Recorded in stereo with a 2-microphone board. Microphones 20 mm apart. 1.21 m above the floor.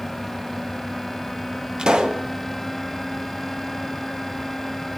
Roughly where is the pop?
Right.